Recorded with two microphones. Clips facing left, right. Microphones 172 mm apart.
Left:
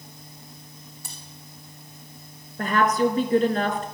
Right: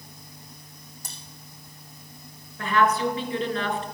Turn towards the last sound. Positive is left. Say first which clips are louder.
# left 2 dB
turn(degrees=45)  # may be behind; listen again after turning